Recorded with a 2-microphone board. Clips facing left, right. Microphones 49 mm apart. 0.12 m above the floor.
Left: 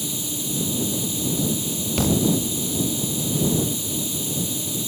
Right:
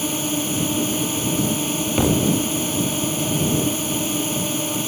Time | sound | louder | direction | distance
0.0 | a drone | right 7 dB | 60° right (ahead or behind) | ?
2.0 | a thud | right 1 dB | 20° right (ahead or behind) | ?